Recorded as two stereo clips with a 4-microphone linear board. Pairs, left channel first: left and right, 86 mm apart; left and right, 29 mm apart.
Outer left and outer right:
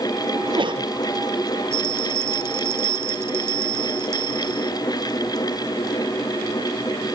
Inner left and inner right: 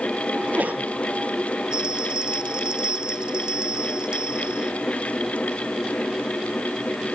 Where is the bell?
30° right (ahead or behind).